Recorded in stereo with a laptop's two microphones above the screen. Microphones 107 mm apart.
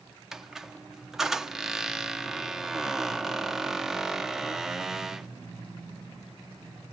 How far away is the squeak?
About 0.7 m.